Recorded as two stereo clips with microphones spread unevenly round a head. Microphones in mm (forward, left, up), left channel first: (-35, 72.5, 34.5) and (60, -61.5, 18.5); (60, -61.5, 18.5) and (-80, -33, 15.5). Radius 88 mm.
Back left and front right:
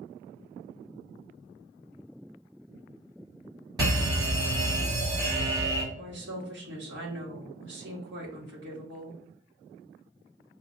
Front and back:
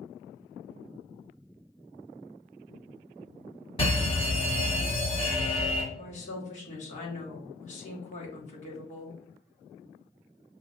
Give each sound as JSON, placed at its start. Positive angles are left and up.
{"t": 3.8, "sound": "a fire alarm", "azimuth_deg": -20, "distance_m": 2.0}
{"t": 5.9, "sound": "a woman speaking", "azimuth_deg": -50, "distance_m": 1.8}